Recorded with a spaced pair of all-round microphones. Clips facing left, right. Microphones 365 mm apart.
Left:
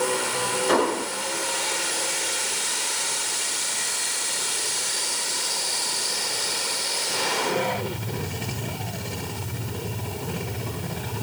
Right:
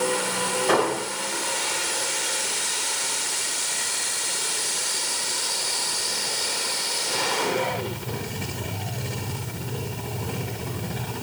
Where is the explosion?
65° right (ahead or behind), 1.6 m.